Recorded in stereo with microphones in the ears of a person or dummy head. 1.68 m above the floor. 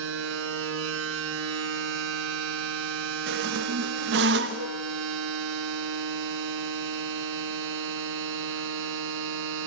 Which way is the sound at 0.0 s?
80° right.